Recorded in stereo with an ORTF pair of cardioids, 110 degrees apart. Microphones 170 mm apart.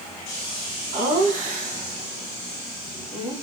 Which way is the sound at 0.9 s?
60° right.